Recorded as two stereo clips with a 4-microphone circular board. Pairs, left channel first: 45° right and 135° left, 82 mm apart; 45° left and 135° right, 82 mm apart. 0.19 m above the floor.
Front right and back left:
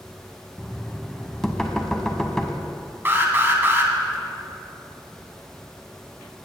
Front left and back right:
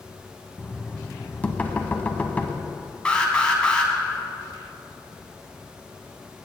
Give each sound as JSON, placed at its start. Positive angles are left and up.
{"t": 0.6, "sound": "knocking", "azimuth_deg": 25, "distance_m": 0.7}
{"t": 3.0, "sound": "an alarm", "azimuth_deg": 110, "distance_m": 1.2}